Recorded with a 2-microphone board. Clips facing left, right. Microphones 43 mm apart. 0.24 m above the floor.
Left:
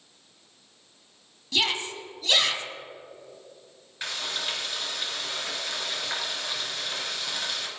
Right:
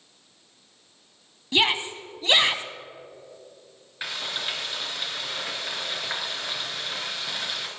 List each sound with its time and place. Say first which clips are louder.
1.5 s a shout: right 4 dB; 25° right (ahead or behind), 1.4 m
4.0 s frying: right 1 dB; 10° right (ahead or behind), 3.5 m